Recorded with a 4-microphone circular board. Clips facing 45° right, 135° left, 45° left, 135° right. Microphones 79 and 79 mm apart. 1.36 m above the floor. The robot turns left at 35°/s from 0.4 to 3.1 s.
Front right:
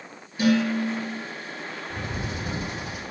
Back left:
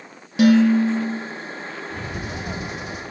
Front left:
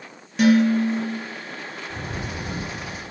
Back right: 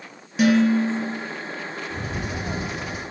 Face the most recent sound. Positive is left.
turn(degrees=-15)